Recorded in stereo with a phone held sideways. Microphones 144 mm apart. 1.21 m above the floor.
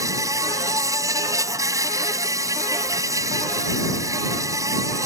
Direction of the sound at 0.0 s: 20° right (ahead or behind).